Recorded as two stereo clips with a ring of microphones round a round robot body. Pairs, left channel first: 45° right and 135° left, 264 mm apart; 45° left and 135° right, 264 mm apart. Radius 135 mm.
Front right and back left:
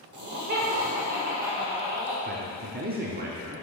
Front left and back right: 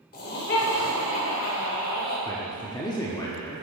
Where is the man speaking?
110° left, 1.2 m.